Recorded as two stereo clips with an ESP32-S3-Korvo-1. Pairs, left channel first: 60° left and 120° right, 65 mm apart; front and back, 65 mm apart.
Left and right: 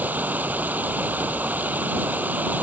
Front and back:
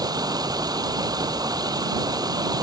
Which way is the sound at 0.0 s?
175° left.